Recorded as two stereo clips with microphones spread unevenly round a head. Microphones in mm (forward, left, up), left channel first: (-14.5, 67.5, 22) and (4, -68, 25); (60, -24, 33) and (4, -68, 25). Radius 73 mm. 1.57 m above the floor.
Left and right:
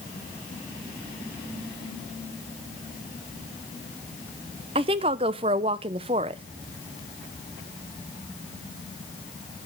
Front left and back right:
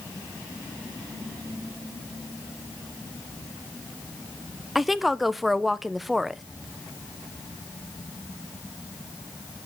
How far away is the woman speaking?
About 0.5 m.